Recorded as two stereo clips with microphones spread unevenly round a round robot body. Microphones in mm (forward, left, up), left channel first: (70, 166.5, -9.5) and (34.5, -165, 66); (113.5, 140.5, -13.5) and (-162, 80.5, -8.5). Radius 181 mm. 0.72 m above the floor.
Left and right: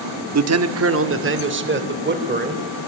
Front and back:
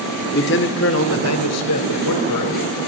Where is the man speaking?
50° right, 1.6 m; by 2.6 s 30° right, 3.5 m.